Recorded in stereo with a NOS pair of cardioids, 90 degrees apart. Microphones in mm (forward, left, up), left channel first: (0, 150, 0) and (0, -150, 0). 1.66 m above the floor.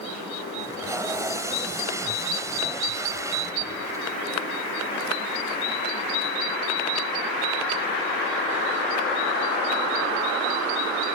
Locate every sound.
0.6 s tape being pulled: 10° right